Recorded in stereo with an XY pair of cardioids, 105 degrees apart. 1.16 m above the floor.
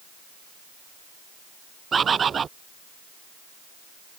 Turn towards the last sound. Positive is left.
turn(degrees=-40)